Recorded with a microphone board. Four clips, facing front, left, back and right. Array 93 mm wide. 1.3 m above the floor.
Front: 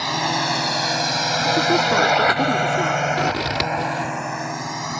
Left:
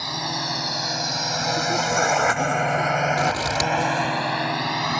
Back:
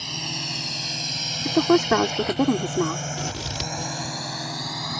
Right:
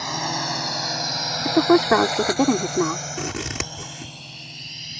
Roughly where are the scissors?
Ahead right.